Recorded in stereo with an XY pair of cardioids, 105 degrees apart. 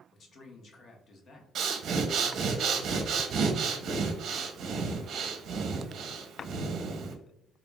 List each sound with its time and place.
0.1 s a man speaking: 55° left, 0.9 m
1.6 s breathing: 60° right, 0.6 m